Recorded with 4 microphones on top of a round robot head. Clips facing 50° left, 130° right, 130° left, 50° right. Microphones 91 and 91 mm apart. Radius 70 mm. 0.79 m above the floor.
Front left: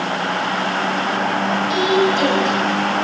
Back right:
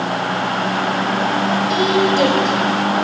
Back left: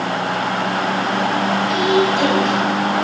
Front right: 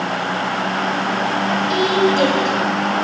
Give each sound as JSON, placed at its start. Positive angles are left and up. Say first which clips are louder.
{"t": 1.7, "sound": "a woman speaking", "louder": "even, front right 1 dB", "azimuth_deg": -90, "distance_m": 5.5}